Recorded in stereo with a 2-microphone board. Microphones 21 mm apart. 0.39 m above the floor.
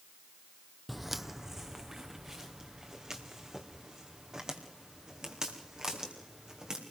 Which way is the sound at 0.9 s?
Centre (ahead or behind).